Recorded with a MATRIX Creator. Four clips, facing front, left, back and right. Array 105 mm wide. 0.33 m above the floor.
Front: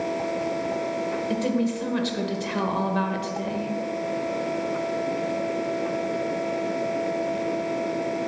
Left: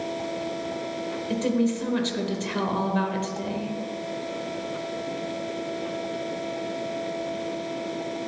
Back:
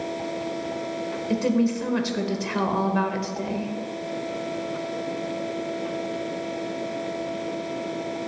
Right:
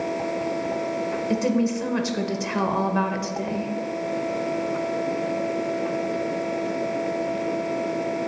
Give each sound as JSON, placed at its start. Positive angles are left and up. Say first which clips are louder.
{"t": 1.3, "sound": "a woman speaking", "louder": "right 1 dB, back 5 dB", "azimuth_deg": -115, "distance_m": 0.8}